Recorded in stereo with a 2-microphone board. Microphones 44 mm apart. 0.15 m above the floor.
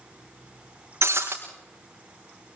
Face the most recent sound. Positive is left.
turn(degrees=-75)  # may be behind; listen again after turning